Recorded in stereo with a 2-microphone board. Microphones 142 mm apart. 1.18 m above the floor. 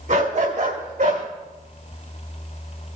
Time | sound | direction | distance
0.1 | a dog barking | 70° right (ahead or behind) | 2 m